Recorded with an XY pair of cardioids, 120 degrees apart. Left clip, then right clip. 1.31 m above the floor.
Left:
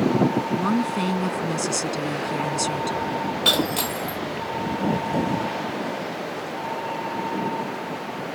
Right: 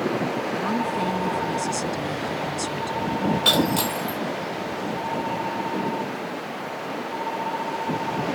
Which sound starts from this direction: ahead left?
A woman speaking, at 0.5 s.